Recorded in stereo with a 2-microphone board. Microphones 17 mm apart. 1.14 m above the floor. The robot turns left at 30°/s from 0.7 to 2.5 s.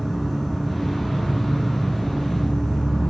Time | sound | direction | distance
0.0 | an insect | 140° left | 1.2 m